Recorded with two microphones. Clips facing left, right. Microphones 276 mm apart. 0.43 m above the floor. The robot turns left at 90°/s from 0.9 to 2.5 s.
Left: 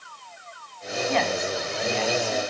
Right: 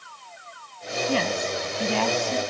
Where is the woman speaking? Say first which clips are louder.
Even; 30° right, 2.5 m; by 2.4 s 150° right, 2.5 m.